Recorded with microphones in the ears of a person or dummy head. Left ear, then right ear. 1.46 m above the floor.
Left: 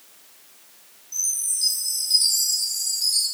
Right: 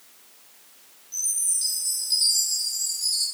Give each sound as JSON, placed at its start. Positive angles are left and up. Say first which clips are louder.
{"t": 1.1, "sound": "a chime", "louder": "left 2 dB", "side_deg": -5, "distance_m": 2.5}